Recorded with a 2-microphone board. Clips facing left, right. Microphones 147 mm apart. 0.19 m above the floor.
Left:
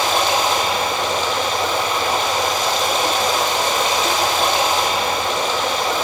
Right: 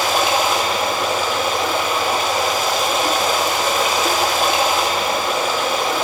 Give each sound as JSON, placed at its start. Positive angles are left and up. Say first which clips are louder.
{"t": 0.0, "sound": "running water", "louder": "even", "side_deg": -10, "distance_m": 1.3}